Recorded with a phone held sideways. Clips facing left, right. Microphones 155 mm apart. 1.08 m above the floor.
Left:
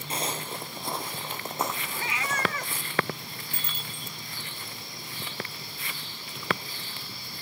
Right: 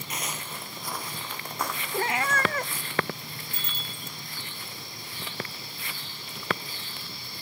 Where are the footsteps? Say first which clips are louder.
Left 5 dB; 30° left (ahead or behind), 1.2 m; by 2.9 s 20° left (ahead or behind), 4.5 m.